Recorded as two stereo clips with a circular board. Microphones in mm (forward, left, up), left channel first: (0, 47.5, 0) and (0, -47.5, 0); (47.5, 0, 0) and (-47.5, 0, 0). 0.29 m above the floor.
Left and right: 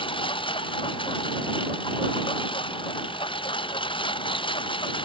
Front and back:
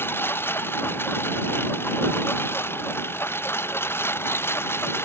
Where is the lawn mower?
65° left.